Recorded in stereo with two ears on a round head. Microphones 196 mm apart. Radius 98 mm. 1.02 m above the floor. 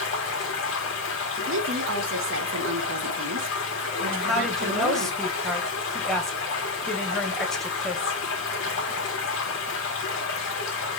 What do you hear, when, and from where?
0.0 s running water: 60° left (ahead or behind), 1.9 m
1.4 s a woman speaking: 60° right (ahead or behind), 1.2 m
4.1 s a woman speaking: centre (ahead or behind), 1.1 m